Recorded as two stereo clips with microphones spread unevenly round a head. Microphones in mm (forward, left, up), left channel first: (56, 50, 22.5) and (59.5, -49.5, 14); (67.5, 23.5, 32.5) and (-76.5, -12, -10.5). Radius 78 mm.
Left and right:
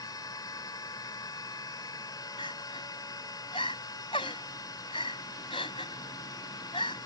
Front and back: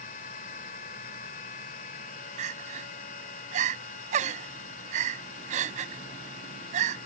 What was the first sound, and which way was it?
A machine running, 45° left.